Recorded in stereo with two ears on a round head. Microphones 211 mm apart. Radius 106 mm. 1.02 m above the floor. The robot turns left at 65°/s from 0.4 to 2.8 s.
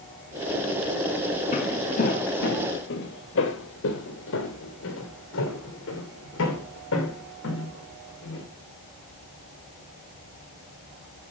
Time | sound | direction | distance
1.5 | footsteps | 30° left (ahead or behind) | 1.2 m